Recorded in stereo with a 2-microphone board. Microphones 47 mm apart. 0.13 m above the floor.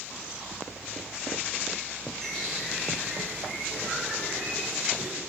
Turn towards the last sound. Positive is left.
turn(degrees=5)  # may be behind; listen again after turning